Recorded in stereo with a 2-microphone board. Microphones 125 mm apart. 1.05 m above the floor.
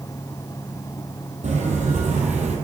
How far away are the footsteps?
About 2.5 m.